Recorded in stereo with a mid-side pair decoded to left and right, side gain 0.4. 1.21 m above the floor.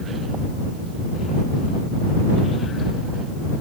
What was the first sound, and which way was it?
Only background noise.